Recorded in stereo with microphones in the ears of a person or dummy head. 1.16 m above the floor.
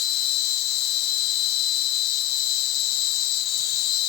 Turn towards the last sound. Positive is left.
turn(degrees=55)  # may be behind; listen again after turning